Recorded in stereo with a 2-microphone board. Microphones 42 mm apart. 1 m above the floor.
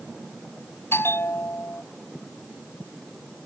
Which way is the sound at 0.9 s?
70° left (ahead or behind).